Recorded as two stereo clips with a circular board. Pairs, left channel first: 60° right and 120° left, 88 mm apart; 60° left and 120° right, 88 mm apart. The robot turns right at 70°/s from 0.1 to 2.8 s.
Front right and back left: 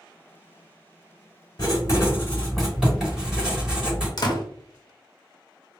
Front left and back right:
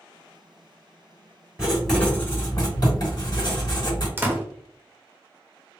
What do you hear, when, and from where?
1.6 s writing: 45° right, 1.9 m; by 4.1 s 40° left, 1.9 m
4.2 s a door slam: 55° right, 0.6 m